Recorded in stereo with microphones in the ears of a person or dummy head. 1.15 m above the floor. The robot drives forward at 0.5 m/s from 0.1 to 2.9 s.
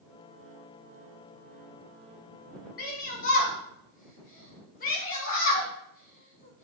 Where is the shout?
50° left (ahead or behind), 1.3 m.